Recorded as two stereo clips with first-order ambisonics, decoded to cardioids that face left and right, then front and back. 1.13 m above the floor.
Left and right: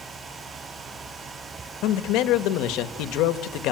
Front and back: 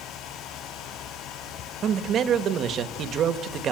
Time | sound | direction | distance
1.8 | a man speaking | 125° left | 1.3 m